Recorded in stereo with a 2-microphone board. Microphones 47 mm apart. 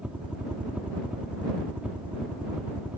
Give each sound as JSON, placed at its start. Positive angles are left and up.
{"t": 0.0, "sound": "a helicopter", "side_deg": -25}